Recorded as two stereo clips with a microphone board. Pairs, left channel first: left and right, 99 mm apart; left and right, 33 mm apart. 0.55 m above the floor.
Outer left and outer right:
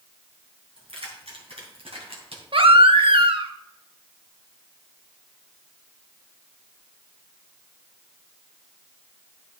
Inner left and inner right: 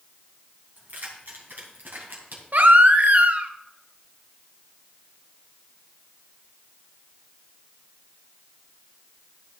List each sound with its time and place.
0.8 s keys jangling: 70° right (ahead or behind), 3.5 m; by 2.4 s 80° right, 2.5 m
2.5 s a baby crying: 60° right (ahead or behind), 0.7 m